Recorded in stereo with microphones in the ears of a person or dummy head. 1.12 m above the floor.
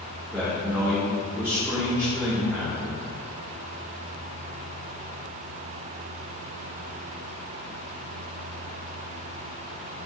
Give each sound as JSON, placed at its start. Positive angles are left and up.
{"t": 0.3, "sound": "a man speaking", "side_deg": -5, "distance_m": 2.0}